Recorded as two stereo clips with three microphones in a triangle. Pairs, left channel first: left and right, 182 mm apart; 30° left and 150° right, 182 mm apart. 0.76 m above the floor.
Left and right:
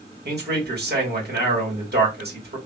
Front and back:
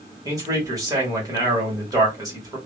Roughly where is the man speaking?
Right.